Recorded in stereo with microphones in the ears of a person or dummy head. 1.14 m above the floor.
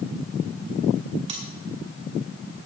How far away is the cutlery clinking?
About 2 m.